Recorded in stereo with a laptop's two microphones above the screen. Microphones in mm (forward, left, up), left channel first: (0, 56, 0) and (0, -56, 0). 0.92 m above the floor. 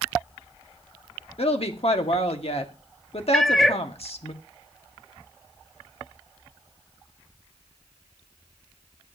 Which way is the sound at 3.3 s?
Centre (ahead or behind).